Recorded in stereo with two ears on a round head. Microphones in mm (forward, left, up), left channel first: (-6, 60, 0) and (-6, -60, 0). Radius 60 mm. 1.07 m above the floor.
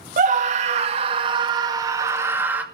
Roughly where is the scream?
Right.